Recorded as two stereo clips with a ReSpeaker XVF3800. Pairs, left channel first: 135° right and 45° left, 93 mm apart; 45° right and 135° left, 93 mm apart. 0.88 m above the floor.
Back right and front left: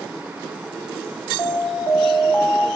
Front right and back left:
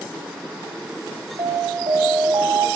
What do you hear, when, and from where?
1.4 s an alarm: 150° left, 2.5 m